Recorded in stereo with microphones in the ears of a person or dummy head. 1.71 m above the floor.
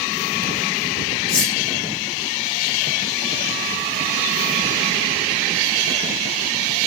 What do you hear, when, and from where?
1.3 s cutlery clinking: 65° left (ahead or behind), 9 m